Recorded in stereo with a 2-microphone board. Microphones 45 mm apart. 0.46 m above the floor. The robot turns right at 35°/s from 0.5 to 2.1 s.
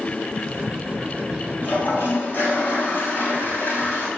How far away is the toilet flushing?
About 1.9 m.